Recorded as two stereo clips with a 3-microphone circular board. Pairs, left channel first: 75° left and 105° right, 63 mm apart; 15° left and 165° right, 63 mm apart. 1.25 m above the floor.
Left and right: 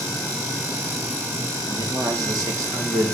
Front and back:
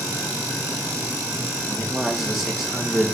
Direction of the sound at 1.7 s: 80° right.